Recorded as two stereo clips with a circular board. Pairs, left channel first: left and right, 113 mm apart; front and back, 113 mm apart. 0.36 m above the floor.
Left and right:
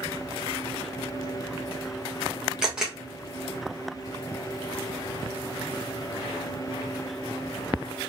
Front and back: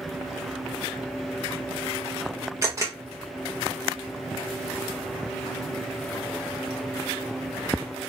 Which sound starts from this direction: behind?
A camera shutter, at 2.6 s.